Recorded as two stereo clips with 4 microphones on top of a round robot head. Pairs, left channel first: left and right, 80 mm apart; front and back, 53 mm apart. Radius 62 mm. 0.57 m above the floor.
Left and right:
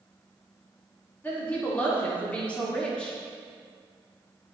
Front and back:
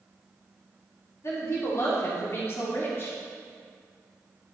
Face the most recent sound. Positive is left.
turn(degrees=15)